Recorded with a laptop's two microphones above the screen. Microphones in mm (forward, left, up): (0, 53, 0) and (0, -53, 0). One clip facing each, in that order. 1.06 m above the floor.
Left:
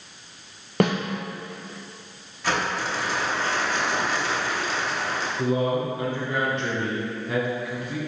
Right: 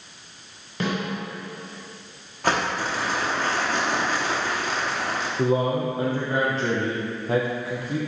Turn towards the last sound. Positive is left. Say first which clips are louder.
# right 2 dB
turn(degrees=-35)  # may be behind; listen again after turning